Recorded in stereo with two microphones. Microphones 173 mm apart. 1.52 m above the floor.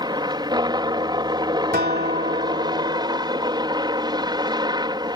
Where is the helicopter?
25° right (ahead or behind).